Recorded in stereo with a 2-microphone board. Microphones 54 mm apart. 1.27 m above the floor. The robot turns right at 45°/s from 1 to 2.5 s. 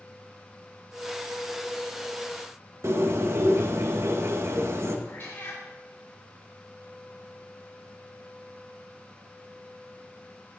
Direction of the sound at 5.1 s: 45° left (ahead or behind).